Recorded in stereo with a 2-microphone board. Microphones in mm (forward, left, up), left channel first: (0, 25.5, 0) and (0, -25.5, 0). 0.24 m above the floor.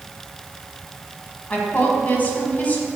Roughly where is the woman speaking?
Left.